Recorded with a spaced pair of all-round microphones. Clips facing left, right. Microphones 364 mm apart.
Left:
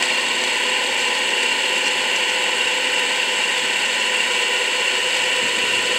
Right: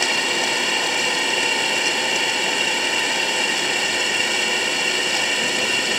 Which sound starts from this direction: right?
An engine running, at 0.0 s.